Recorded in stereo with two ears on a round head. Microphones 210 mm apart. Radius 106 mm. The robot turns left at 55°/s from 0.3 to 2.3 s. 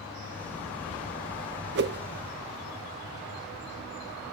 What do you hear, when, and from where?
1.8 s a whoosh: 50° right (ahead or behind), 0.5 m; by 2.0 s 40° right (ahead or behind), 0.5 m